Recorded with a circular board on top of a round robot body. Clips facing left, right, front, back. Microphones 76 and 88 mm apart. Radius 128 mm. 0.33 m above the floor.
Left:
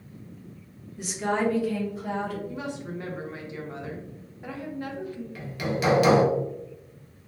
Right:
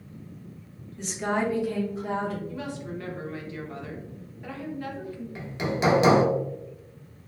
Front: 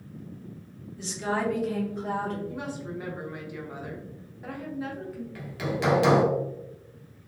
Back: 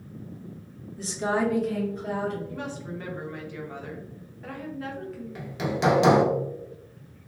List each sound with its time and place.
1.0 s a woman speaking: 170° left, 1.2 m; by 2.4 s 40° right, 1.7 m
2.5 s a woman speaking: 60° left, 1.0 m
5.3 s hammering: 130° right, 0.8 m